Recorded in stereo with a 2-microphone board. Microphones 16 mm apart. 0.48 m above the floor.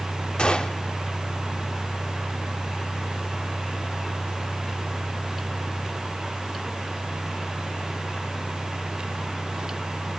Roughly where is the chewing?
No chewing in this recording.